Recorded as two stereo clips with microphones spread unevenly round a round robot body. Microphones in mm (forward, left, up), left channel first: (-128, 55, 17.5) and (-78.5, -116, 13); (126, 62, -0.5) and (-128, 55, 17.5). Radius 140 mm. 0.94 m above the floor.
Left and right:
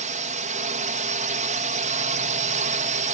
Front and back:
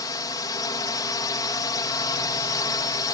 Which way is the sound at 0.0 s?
65° right.